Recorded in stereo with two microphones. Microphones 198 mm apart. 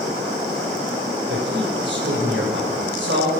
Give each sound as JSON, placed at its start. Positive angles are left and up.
{"t": 1.3, "sound": "a man speaking", "side_deg": -65, "distance_m": 2.5}